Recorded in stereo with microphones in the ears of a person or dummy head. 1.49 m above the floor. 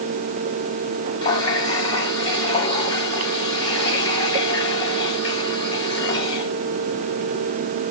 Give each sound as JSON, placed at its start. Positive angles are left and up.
{"t": 1.2, "sound": "a running tap", "side_deg": 30, "distance_m": 4.0}